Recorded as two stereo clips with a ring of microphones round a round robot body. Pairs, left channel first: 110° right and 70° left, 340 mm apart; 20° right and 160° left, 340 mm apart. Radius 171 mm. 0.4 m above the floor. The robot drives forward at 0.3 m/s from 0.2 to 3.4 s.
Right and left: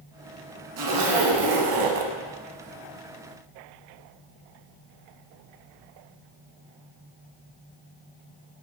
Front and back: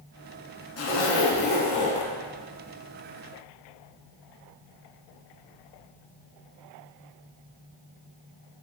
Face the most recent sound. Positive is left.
turn(degrees=105)